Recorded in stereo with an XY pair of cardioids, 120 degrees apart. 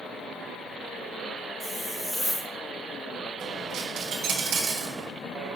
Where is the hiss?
Straight ahead, 0.8 m.